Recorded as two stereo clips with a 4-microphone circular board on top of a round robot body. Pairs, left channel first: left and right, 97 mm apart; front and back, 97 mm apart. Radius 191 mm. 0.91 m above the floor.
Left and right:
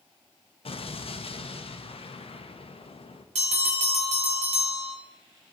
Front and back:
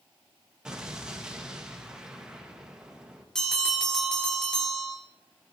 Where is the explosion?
100° left, 1.1 m.